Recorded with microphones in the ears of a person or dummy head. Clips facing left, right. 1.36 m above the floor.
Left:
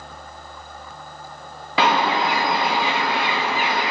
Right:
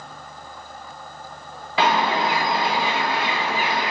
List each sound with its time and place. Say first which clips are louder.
1.8 s a bird: left 1 dB; 55° left (ahead or behind), 0.6 m